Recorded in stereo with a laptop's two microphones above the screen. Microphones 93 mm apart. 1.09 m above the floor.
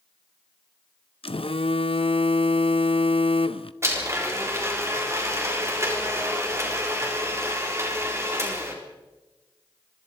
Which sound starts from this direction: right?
A blender, at 3.8 s.